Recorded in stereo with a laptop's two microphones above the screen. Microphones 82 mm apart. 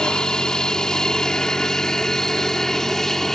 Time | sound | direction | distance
0.0 | an aircraft | 10° left (ahead or behind) | ?